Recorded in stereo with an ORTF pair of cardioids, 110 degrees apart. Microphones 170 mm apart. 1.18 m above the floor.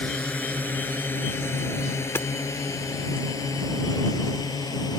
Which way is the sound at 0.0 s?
10° left.